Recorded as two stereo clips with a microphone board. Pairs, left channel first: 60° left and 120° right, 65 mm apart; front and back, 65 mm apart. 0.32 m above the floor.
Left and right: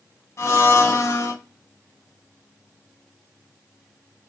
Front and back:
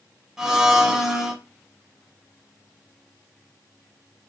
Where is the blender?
100° left, 0.9 m.